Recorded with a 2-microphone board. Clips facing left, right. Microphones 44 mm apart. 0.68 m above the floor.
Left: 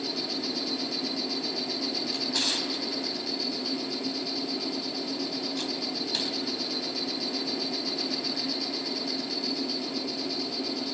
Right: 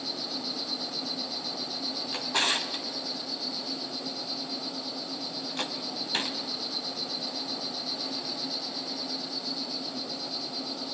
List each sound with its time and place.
0.0 s an insect: 75° left (ahead or behind), 4.5 m
2.1 s a drawer: 35° right (ahead or behind), 1.4 m